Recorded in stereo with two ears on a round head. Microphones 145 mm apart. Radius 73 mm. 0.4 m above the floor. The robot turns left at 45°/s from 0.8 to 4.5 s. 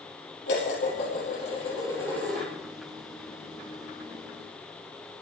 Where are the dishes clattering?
70° left, 7.5 m; by 2.5 s 5° right, 7.5 m.